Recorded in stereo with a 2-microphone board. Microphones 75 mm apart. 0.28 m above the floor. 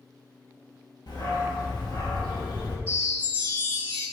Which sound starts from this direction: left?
A dog barking, at 1.1 s.